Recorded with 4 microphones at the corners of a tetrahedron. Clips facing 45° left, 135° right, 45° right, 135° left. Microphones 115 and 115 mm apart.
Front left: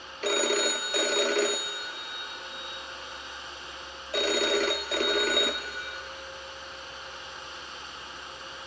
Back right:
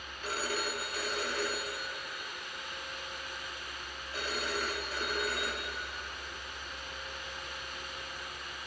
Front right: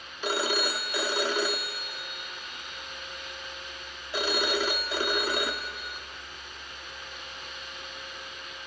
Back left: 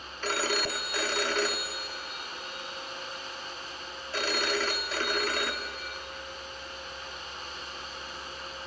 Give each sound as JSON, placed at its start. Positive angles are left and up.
{"t": 0.2, "sound": "a phone ringing", "azimuth_deg": 30, "distance_m": 0.5}